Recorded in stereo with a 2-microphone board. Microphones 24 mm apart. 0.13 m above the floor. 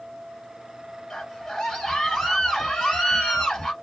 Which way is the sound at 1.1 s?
25° left (ahead or behind).